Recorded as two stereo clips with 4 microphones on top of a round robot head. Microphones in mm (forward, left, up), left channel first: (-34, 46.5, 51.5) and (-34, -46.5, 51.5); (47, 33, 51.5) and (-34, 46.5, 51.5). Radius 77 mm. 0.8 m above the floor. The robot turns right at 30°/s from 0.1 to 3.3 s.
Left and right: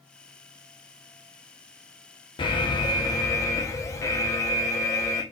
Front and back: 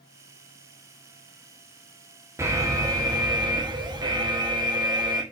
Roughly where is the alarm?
Behind left.